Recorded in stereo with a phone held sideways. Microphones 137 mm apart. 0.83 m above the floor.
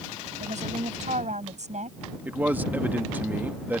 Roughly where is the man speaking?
Centre.